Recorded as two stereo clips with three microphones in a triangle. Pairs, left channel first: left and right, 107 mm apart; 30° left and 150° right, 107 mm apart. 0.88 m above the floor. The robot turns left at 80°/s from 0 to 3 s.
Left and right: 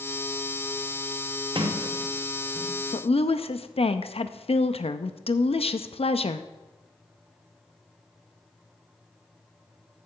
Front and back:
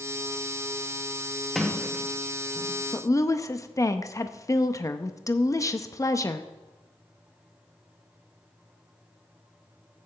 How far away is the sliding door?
About 1.2 m.